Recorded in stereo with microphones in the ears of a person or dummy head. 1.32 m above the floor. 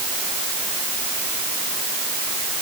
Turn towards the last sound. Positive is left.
No sound to turn to.